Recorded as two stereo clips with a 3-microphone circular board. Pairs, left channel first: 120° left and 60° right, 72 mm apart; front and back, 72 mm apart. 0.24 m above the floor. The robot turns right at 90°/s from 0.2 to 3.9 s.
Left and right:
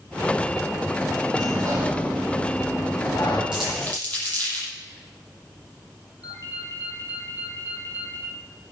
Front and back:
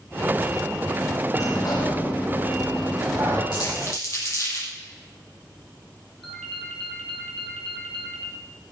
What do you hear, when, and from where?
1.3 s a sliding door: 55° right, 5 m; by 3.4 s 135° left, 5 m
3.5 s crumpling: 15° left, 6.5 m; by 4.7 s 50° left, 6.5 m
6.2 s a ringtone: 85° left, 4 m